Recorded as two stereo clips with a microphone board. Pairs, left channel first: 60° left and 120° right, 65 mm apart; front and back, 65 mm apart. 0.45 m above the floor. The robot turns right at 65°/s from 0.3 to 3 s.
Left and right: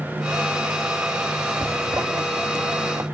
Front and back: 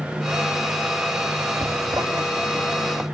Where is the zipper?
175° right, 3 m; by 3.0 s 80° right, 3 m.